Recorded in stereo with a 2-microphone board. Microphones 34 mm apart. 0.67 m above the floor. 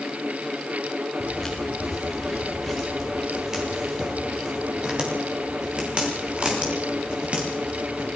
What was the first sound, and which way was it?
Footsteps, 10° left (ahead or behind).